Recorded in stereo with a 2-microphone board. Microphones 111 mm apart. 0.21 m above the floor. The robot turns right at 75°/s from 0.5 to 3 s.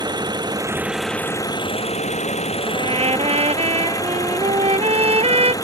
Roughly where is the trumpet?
Right.